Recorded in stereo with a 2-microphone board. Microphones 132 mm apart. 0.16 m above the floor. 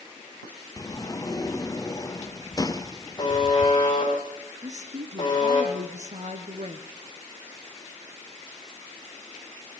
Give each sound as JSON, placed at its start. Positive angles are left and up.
{"t": 0.8, "sound": "a sliding door", "side_deg": 30, "distance_m": 1.3}
{"t": 3.2, "sound": "a buzzer", "side_deg": 30, "distance_m": 10.0}
{"t": 4.6, "sound": "a woman speaking", "side_deg": -60, "distance_m": 2.0}